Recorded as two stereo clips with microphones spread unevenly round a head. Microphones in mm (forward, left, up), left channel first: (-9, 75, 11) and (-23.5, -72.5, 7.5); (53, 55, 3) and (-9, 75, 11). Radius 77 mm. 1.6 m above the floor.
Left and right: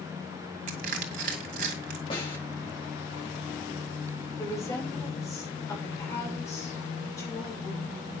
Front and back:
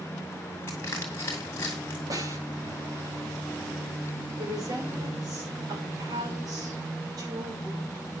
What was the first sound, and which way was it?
Crushing, 85° right.